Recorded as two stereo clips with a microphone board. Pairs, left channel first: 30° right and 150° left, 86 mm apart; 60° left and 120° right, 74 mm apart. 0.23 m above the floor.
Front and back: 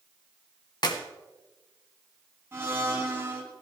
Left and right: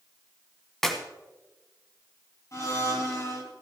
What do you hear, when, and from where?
0.8 s a clap: 25° right, 1.3 m
2.5 s a blender: 95° left, 2.5 m